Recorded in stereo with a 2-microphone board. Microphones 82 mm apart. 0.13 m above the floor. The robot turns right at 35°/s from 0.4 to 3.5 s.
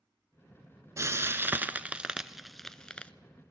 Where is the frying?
35° right (ahead or behind), 0.6 m; by 3.1 s 15° left (ahead or behind), 0.6 m.